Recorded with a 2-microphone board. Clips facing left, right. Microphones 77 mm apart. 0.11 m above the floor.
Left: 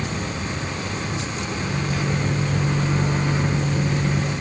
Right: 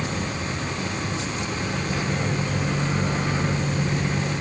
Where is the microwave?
Centre (ahead or behind), 0.9 m.